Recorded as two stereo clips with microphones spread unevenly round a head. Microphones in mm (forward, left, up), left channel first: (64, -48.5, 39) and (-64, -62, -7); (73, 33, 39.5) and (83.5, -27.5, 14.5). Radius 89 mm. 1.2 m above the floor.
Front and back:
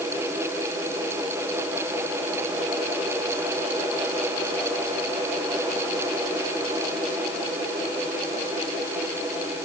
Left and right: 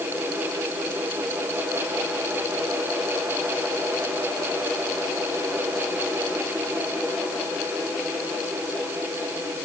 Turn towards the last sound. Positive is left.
No sound to turn to.